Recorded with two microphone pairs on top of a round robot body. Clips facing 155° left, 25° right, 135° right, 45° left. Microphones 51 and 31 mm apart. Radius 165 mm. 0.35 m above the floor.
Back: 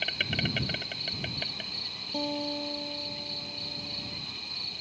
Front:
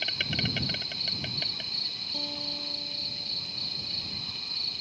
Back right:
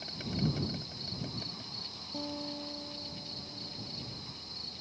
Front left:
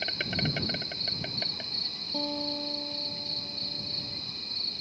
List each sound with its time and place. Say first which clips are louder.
0.0 s an insect: back 1 dB, front left 5 dB; 70° left
2.1 s a guitar: back 9 dB, front left 6 dB; 95° left